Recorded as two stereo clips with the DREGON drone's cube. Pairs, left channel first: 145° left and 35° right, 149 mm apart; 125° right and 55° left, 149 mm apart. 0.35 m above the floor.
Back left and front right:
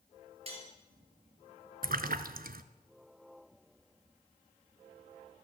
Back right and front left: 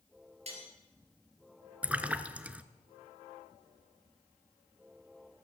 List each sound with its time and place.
0.5 s cutlery clinking: 10° left, 3.5 m
1.8 s a splash: 25° right, 0.7 m